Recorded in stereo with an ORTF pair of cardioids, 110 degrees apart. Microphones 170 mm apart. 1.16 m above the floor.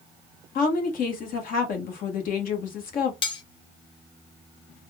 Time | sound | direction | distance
0.6 | a woman speaking | 60° left | 1.4 m
3.2 | cutlery clinking | 35° left | 0.7 m